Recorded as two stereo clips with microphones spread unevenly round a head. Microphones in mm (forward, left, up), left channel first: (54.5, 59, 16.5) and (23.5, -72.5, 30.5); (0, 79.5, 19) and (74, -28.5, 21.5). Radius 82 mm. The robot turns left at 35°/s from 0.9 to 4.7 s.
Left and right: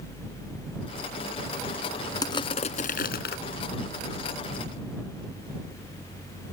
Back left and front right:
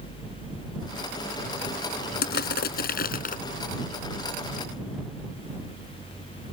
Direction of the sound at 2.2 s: 150° left.